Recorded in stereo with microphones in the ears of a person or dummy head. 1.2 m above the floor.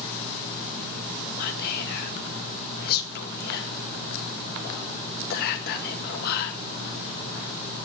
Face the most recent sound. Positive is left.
turn(degrees=55)  # may be behind; listen again after turning